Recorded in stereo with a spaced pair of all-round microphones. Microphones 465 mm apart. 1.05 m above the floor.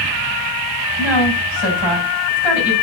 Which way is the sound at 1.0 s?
80° right.